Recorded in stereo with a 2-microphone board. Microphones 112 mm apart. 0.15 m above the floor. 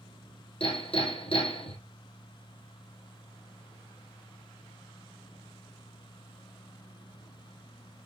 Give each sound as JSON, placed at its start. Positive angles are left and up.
{"t": 0.6, "sound": "hammering", "side_deg": 65, "distance_m": 3.0}